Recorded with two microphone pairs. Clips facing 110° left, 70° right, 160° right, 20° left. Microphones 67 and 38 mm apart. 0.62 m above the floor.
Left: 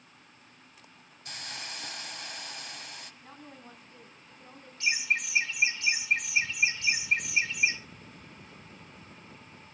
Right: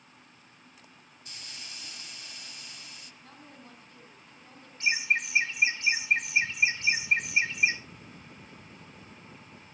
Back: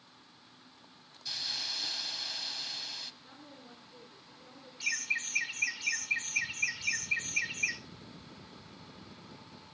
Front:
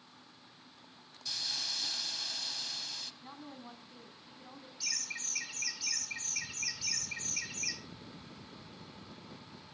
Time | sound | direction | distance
1.2 | a hiss | 120° left | 1.2 m
3.2 | a woman speaking | 40° left | 5 m
4.8 | laughter | 115° right | 2 m